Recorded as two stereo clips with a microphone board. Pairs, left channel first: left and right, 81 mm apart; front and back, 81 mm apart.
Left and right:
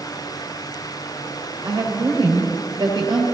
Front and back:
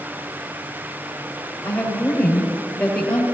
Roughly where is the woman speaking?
Right.